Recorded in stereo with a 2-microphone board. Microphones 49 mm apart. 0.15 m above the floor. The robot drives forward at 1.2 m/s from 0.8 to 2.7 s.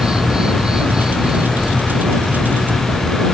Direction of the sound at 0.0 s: 15° right (ahead or behind).